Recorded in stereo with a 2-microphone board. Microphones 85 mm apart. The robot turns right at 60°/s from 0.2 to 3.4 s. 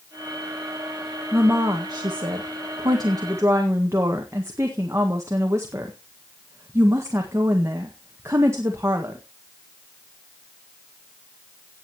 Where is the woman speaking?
160° right, 1.7 m; by 9.2 s 35° right, 1.7 m.